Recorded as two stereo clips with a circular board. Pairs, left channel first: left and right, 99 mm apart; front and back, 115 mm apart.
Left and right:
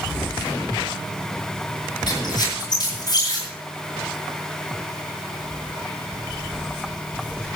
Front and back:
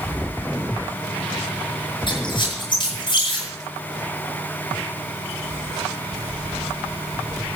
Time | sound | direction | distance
2.1 | a squeak | 45° left | 9 m